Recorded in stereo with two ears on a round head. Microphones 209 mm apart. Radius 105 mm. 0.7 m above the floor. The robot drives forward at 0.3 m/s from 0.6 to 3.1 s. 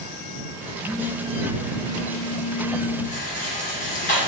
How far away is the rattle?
About 3 m.